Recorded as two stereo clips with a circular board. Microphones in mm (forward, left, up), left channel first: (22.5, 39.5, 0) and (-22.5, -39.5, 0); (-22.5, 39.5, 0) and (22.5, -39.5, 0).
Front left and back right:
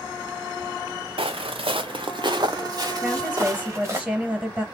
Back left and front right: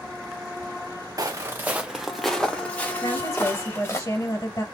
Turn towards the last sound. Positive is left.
turn(degrees=165)